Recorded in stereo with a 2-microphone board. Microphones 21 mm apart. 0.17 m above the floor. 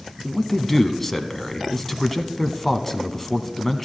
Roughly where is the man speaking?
Centre.